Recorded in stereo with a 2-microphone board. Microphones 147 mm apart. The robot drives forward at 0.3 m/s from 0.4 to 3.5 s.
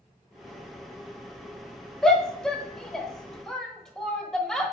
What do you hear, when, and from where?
2.0 s a shout: 5° left (ahead or behind), 0.9 m